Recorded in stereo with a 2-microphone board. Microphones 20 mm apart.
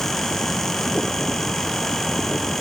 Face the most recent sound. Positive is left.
No sound to turn to.